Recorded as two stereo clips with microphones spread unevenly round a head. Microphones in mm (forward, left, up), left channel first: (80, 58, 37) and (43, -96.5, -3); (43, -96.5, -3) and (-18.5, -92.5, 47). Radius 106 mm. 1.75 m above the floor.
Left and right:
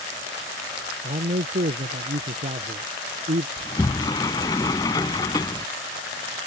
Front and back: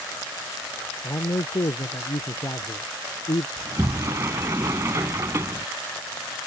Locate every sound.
1.0 s a man speaking: 55° right
3.6 s a sliding door: 145° left